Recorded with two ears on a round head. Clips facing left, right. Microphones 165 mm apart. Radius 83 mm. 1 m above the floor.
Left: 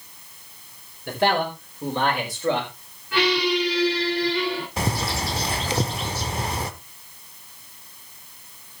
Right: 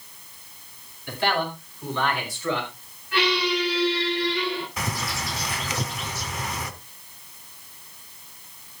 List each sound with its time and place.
1.1 s a man speaking: 45° left (ahead or behind), 5 m; by 2.7 s 35° left (ahead or behind), 4.5 m
3.1 s a squeak: 70° left (ahead or behind), 9.5 m
4.8 s a bird: 25° left (ahead or behind), 1.0 m